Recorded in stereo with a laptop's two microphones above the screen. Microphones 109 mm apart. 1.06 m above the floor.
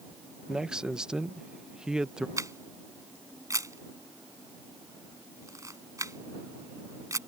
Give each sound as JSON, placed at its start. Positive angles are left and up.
{"t": 0.5, "sound": "a man speaking", "side_deg": -5}
{"t": 2.4, "sound": "a camera shutter", "side_deg": -30}